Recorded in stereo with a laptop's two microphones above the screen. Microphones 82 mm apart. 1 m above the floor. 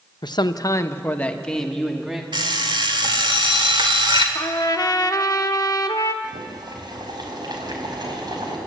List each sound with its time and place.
0.2 s a man speaking: 60° left (ahead or behind), 0.9 m; by 2.2 s 5° right (ahead or behind), 2.0 m
2.3 s an alarm clock: 75° right (ahead or behind), 2 m
4.3 s a trumpet: 50° left (ahead or behind), 1.0 m
6.2 s boiling: 60° right (ahead or behind), 4.5 m